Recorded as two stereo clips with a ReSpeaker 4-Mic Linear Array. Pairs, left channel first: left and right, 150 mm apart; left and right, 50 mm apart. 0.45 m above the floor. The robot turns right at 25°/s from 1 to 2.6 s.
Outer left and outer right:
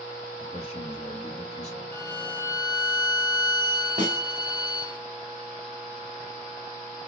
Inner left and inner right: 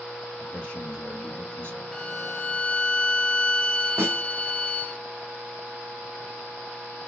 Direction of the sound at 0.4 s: 45° left (ahead or behind).